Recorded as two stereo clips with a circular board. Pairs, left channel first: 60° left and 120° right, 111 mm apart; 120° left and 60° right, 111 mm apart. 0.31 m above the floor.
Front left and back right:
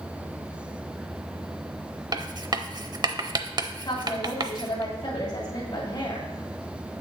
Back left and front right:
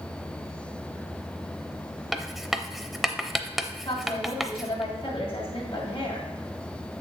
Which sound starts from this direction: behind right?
Writing, at 2.1 s.